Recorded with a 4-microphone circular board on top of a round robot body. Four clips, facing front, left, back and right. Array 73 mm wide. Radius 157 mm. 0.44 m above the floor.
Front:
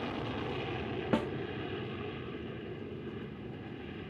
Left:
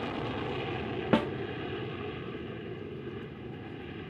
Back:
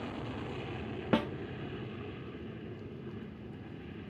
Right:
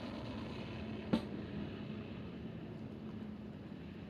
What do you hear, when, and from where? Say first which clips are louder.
0.0 s an aircraft: left 10 dB, front 3 dB; 70° left
1.1 s a snare drum: left 10 dB, back 2 dB; 105° left